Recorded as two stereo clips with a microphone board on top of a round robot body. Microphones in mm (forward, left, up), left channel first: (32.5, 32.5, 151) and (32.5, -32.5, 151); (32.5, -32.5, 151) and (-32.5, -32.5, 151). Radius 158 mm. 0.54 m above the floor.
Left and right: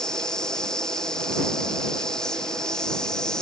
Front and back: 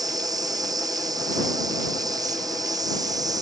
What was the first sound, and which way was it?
An insect, 170° left.